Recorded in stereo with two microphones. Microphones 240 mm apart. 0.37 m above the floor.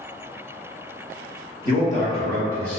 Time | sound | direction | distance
1.6 | a man speaking | 35° left (ahead or behind) | 1.3 m